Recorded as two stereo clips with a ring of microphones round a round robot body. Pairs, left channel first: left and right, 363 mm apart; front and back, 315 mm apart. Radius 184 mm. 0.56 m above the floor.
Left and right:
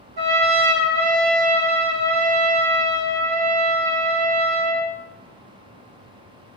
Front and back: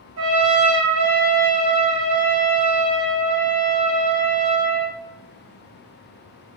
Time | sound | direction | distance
0.2 | a trumpet | 130° right | 0.8 m